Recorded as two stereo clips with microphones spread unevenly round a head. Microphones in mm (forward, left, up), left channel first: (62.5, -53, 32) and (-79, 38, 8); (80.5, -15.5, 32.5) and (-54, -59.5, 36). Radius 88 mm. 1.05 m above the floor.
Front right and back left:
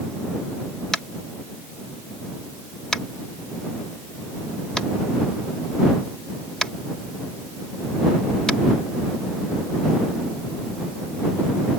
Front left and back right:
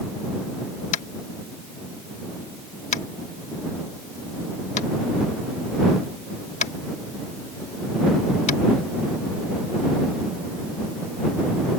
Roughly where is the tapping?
Ahead left.